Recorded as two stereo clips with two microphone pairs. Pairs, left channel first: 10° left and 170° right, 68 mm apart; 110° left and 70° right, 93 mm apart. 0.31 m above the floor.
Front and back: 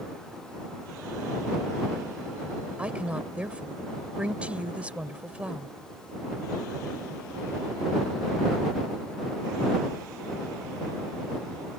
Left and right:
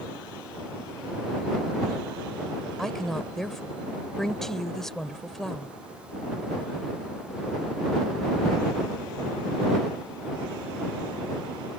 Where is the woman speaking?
170° right.